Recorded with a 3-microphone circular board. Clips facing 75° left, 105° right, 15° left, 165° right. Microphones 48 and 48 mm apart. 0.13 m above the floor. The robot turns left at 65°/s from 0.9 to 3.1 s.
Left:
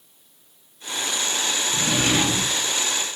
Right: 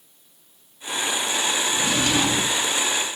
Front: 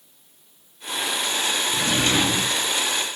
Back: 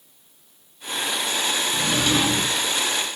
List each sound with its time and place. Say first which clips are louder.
1.7 s a drawer: left 2 dB, even; 60° left, 1.4 m; by 2.6 s 5° left, 1.4 m